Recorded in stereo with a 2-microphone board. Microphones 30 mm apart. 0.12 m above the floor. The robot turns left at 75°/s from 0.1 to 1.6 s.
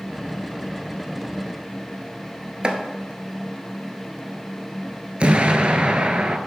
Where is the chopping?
35° right (ahead or behind), 0.7 m.